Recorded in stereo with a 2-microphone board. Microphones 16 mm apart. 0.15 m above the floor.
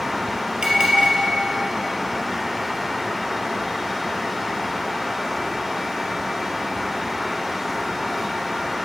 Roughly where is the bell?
Right.